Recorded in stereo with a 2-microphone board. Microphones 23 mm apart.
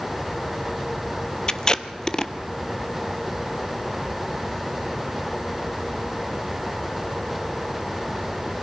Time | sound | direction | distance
1.5 | tape being pulled | 35° left (ahead or behind) | 0.8 m